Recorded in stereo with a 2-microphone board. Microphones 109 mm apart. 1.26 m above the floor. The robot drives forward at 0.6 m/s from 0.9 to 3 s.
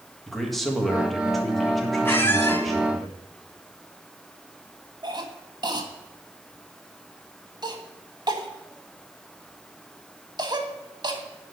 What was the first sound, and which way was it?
A man speaking, centre (ahead or behind).